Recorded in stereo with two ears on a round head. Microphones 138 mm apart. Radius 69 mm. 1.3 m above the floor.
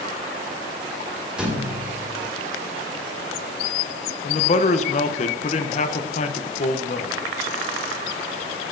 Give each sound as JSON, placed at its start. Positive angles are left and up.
{"t": 1.4, "sound": "a thud", "side_deg": -5, "distance_m": 1.9}
{"t": 4.2, "sound": "a man speaking", "side_deg": 45, "distance_m": 0.7}